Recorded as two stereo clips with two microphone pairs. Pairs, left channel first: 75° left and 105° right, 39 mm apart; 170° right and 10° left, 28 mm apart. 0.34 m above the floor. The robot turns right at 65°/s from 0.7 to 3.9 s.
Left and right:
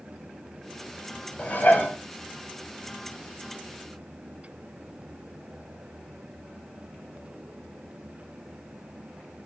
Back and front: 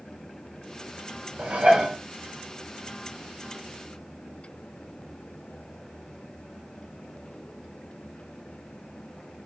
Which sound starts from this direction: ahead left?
Dishes clattering, at 1.4 s.